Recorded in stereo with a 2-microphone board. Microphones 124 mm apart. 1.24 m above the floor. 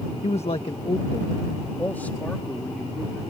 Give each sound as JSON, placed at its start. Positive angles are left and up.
{"t": 0.2, "sound": "a man speaking", "side_deg": 65}